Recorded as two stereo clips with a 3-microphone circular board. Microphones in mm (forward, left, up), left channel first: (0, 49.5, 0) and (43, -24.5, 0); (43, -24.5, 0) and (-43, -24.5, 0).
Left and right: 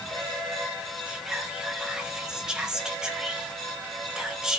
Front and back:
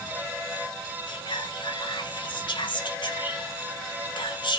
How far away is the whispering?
About 2 m.